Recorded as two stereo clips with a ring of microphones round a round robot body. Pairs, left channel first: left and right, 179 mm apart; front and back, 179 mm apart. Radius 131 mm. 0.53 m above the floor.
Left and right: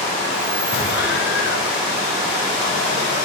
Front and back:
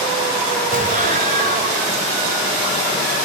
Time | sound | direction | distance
0.7 | an explosion | 135° left | 2 m